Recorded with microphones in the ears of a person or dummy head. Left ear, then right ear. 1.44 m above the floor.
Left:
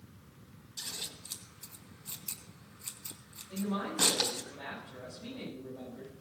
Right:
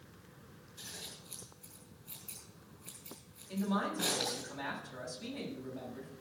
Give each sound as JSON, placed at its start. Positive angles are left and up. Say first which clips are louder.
{"t": 0.8, "sound": "scissors", "louder": "left 6 dB", "side_deg": 55, "distance_m": 4.0}
{"t": 3.5, "sound": "a man speaking", "louder": "right 1 dB", "side_deg": -60, "distance_m": 8.0}